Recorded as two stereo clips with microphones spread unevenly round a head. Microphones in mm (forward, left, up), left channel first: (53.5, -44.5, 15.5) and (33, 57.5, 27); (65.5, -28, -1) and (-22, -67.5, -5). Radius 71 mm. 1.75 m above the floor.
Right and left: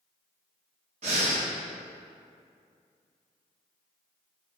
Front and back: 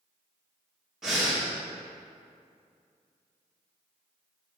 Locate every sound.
1.0 s breathing: 120° left, 1.4 m